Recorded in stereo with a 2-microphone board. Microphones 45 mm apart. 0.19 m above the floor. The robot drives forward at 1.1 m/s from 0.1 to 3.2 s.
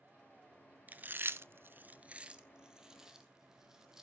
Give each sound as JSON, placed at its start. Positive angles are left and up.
{"t": 0.9, "sound": "chewing", "side_deg": -35, "distance_m": 0.8}